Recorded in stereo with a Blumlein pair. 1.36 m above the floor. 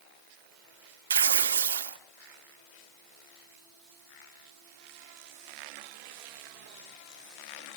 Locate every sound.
1.1 s tearing paper: 65° right, 2 m